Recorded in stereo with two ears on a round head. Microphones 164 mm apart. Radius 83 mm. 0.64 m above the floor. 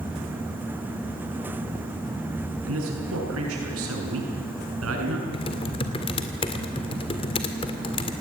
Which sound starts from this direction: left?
Typing on a keyboard, at 5.3 s.